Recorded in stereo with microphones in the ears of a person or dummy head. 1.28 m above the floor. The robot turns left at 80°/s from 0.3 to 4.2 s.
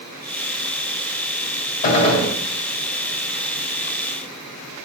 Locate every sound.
1.8 s a gunshot: 55° left, 1.7 m; by 2.3 s 15° left, 1.7 m